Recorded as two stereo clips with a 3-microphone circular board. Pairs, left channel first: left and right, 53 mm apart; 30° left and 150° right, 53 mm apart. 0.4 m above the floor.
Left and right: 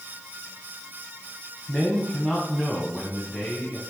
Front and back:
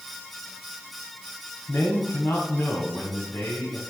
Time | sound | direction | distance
1.7 | a man speaking | straight ahead | 2.5 m